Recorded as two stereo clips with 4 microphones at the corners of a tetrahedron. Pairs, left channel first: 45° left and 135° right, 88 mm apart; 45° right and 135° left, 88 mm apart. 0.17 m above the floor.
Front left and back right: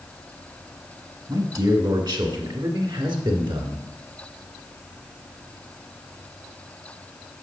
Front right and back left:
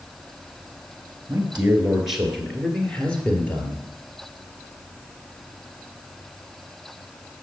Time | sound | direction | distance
1.3 | a man speaking | 155° right | 1.7 m